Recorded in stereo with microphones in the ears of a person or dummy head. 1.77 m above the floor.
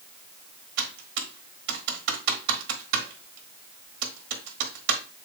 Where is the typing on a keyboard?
65° right (ahead or behind), 1.0 m.